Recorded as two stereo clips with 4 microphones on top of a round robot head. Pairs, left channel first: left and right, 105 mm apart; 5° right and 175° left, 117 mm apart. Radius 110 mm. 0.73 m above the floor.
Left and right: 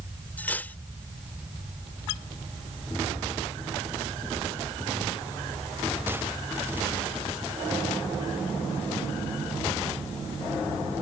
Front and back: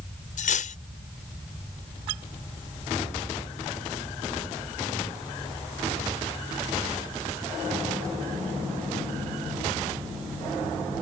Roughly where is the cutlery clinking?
Ahead.